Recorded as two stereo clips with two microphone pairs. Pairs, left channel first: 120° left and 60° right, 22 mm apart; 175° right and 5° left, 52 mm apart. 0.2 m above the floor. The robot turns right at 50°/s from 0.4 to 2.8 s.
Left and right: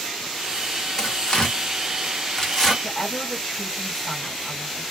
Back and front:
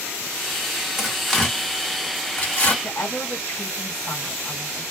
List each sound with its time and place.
1.0 s tearing paper: 85° left, 1.7 m; by 2.7 s 170° left, 1.7 m
2.8 s a woman speaking: 170° right, 1.8 m